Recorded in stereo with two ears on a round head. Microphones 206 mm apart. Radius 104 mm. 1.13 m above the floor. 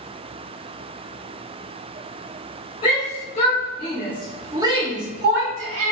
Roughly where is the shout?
Left.